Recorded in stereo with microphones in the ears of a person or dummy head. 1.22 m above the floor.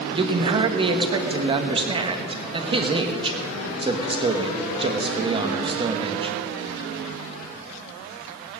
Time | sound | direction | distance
0.1 | a man speaking | 30° right (ahead or behind) | 1.3 m